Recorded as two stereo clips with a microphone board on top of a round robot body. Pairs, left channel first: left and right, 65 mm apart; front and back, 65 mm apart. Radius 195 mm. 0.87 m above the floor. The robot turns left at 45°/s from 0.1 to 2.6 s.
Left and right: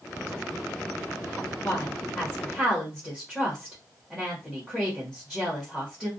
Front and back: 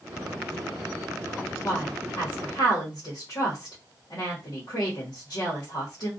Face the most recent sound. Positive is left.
turn(degrees=-5)